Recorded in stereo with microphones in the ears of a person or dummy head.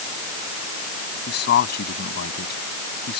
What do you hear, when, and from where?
1.3 s a man speaking: 60° left (ahead or behind)